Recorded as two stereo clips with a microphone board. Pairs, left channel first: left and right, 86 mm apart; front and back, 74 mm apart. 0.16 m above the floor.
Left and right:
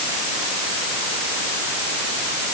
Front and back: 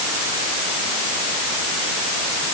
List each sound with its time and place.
Only background noise.